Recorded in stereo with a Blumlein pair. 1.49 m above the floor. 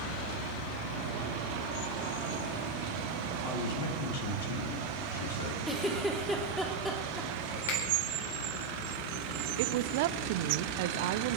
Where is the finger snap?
55° left, 5 m.